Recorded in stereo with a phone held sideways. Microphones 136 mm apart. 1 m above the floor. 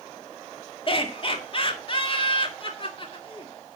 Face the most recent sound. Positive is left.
turn(degrees=40)  # may be behind; listen again after turning